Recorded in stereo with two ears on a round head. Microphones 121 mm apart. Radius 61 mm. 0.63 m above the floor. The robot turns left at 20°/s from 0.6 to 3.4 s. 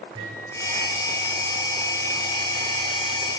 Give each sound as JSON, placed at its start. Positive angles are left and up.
{"t": 0.1, "sound": "a microwave", "side_deg": -40, "distance_m": 8.0}